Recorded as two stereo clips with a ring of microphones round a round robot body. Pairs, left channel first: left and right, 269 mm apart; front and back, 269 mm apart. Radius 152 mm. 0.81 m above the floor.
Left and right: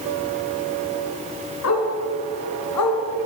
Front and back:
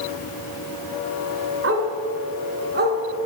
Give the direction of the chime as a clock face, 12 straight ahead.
I don't hear a chime.